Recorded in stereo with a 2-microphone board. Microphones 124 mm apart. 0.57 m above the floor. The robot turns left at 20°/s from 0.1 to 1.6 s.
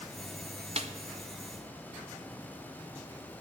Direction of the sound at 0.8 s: 55° right (ahead or behind).